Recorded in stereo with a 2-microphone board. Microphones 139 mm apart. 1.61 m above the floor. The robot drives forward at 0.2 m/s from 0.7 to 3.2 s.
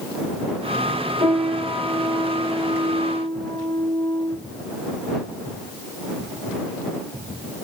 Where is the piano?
55° right (ahead or behind), 1.3 m; by 4.4 s 65° right (ahead or behind), 1.2 m.